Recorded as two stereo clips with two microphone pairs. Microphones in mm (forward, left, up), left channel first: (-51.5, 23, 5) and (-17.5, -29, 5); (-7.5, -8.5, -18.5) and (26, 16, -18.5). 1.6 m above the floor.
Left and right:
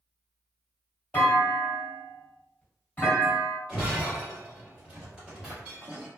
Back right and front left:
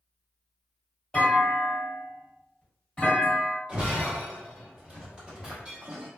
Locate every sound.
1.1 s a clunk: 160° left, 1.7 m
3.7 s breaking glass: 5° left, 1.0 m